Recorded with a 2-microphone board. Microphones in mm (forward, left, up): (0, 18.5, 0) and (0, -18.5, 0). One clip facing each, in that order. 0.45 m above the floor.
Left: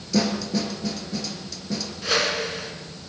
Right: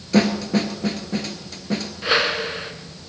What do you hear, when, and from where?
0.1 s a snare drum: 45° right (ahead or behind), 2.5 m
2.0 s a whoosh: 25° right (ahead or behind), 2 m